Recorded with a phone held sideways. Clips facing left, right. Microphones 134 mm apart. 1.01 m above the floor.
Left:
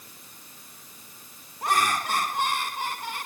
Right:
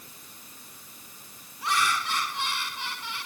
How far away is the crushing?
I don't hear crushing.